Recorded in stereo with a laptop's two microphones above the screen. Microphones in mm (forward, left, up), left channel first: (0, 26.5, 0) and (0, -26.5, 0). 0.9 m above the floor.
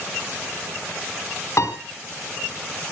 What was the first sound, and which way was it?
A piano, 65° left (ahead or behind).